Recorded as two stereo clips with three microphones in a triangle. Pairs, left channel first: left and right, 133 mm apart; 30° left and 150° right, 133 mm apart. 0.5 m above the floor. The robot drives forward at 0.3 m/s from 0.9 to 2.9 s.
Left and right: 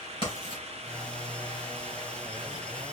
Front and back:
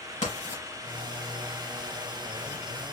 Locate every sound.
0.2 s writing: 50° left, 3 m